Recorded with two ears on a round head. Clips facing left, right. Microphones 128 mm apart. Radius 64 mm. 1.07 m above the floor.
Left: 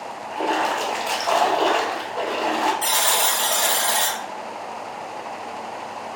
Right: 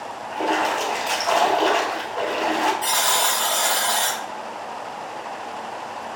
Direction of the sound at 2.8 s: 45° left (ahead or behind).